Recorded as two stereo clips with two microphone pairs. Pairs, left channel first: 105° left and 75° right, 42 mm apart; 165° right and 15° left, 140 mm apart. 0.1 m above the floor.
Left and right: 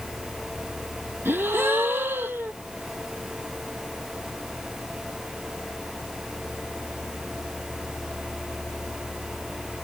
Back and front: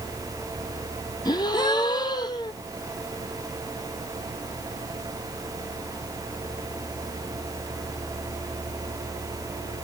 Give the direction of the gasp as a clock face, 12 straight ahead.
3 o'clock.